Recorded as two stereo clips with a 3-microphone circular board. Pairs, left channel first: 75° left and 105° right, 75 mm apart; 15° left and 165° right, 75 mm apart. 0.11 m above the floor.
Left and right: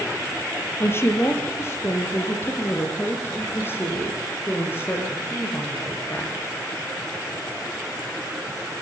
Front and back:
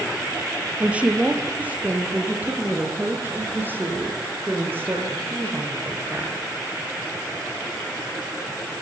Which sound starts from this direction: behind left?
A woman speaking, at 0.8 s.